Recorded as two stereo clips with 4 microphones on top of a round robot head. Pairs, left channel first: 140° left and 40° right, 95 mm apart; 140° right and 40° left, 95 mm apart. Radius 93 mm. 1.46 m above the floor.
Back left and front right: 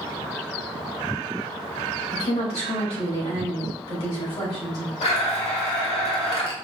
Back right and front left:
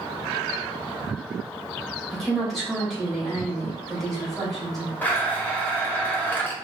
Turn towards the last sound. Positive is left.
turn(degrees=150)